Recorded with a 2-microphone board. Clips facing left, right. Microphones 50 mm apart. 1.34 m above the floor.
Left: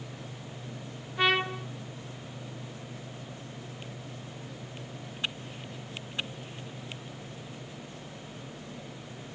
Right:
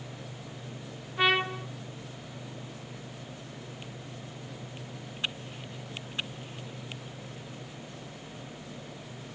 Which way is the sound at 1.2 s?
5° right (ahead or behind).